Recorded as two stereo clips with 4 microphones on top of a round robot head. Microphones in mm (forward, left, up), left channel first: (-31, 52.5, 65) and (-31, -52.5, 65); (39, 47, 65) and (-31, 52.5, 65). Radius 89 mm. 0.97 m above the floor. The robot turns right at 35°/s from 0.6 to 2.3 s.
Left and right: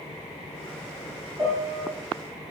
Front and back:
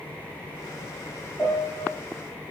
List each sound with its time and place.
1.4 s a piano: 60° right, 0.8 m; by 1.9 s 45° right, 0.8 m